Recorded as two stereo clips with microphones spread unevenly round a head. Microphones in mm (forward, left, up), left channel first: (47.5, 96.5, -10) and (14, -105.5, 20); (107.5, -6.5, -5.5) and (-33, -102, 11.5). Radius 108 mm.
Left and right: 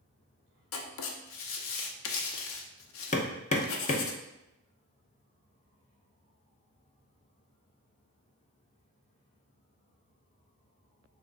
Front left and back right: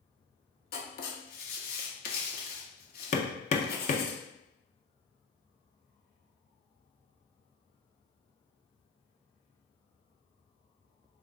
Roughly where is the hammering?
Ahead left.